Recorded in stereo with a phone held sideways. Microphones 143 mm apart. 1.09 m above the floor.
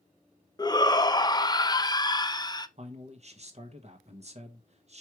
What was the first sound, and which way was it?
A shout, 30° left (ahead or behind).